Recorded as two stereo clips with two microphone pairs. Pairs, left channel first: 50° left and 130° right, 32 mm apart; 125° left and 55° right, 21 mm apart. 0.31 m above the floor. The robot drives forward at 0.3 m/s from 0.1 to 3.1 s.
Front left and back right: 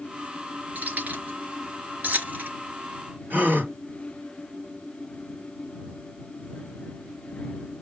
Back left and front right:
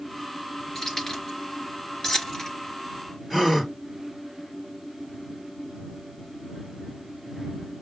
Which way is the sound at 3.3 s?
155° right.